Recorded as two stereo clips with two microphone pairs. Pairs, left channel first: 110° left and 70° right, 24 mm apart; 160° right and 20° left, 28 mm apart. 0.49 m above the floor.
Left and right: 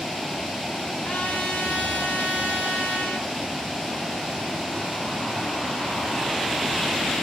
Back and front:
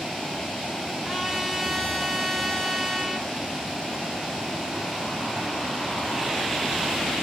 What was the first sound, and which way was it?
A trumpet, 110° left.